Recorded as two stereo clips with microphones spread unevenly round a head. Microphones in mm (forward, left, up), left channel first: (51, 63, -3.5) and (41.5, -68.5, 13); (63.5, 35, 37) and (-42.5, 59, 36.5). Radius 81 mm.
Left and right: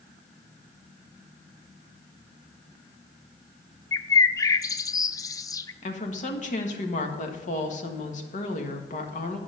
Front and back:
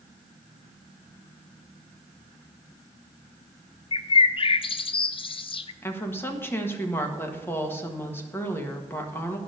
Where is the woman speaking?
55° left, 1.6 m.